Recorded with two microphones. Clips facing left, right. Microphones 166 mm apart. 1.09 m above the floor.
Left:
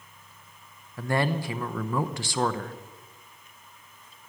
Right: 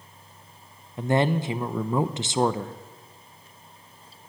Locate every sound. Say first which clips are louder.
1.0 s a man speaking: right 4 dB; 20° right (ahead or behind), 0.7 m